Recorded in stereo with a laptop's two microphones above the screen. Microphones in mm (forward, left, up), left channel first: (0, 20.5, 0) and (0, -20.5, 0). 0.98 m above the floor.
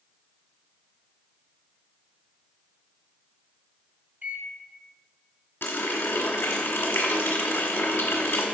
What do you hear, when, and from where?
4.2 s a microwave: 50° right (ahead or behind), 1.3 m
5.6 s a running tap: 65° left (ahead or behind), 1.6 m